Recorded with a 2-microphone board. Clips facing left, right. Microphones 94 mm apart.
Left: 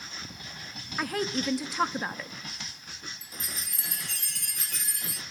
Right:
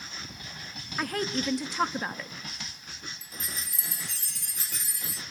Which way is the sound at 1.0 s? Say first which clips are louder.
Even; centre (ahead or behind).